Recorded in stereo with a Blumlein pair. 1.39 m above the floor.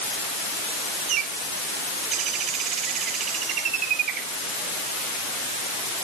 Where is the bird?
35° right.